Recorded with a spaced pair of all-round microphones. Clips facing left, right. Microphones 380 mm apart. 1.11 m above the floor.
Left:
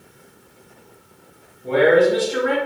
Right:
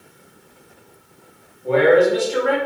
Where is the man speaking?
50° left (ahead or behind), 2 m.